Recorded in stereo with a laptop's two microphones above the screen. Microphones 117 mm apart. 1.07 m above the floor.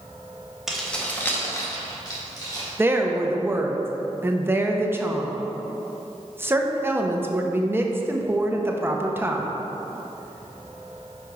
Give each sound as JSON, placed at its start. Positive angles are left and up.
{"t": 0.7, "sound": "keys jangling", "side_deg": -5, "distance_m": 0.6}
{"t": 2.8, "sound": "a woman speaking", "side_deg": -20, "distance_m": 0.8}